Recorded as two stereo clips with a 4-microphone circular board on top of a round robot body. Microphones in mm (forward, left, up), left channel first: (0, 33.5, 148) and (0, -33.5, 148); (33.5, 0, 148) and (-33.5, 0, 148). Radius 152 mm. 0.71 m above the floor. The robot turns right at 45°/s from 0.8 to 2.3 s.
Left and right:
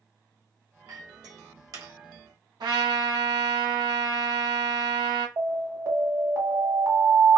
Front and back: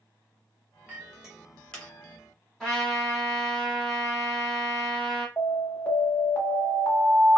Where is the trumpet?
80° right, 1.6 m.